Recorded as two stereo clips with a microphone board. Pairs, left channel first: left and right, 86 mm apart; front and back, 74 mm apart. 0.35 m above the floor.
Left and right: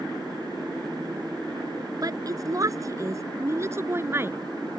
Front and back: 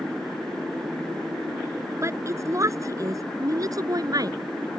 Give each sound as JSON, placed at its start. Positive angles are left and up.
{"t": 2.0, "sound": "a woman speaking", "azimuth_deg": -130}